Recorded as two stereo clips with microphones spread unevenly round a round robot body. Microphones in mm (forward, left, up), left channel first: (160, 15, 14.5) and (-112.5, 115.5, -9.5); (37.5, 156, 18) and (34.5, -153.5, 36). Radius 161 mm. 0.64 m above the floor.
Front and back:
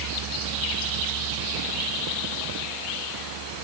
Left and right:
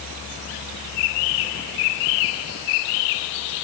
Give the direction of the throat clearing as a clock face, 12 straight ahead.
No throat clearing in this recording.